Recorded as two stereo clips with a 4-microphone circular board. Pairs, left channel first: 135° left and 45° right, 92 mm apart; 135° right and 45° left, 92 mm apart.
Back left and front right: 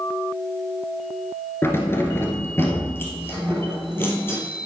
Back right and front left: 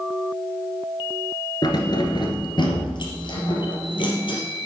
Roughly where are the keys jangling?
Behind.